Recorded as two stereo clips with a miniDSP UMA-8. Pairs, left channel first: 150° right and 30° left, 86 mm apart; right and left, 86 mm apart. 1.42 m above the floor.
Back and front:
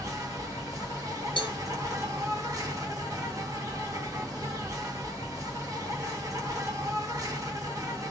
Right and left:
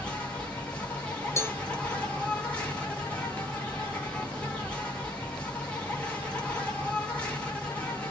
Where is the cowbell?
145° right, 0.6 m.